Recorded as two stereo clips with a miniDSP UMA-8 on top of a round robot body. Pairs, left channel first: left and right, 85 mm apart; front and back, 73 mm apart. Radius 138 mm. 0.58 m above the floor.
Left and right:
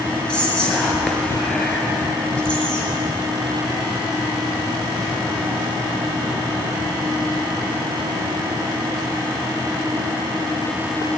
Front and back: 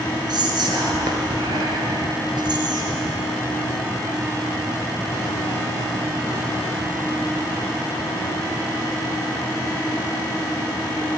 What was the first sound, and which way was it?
Whispering, 165° left.